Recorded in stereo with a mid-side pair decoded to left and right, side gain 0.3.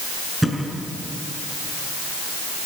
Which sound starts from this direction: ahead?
A thud, at 0.4 s.